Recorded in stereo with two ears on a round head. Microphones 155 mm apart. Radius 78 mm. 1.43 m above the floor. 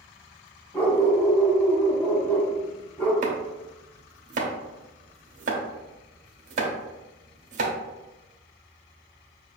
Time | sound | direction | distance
0.7 | a dog barking | 10° left (ahead or behind) | 1.3 m
3.2 | chopping | 45° right (ahead or behind) | 0.9 m